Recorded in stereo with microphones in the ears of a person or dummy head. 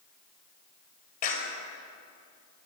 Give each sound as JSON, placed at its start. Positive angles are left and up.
{"t": 1.2, "sound": "a clap", "side_deg": 45, "distance_m": 5.0}